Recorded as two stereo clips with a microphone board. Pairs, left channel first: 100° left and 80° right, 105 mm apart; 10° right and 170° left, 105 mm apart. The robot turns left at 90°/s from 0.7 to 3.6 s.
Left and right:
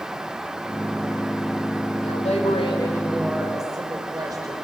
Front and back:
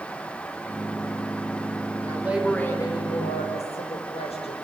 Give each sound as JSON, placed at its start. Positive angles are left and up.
{"t": 2.0, "sound": "a woman speaking", "azimuth_deg": 120, "distance_m": 5.0}